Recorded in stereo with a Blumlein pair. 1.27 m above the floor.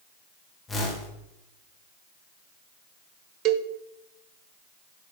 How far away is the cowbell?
About 0.7 m.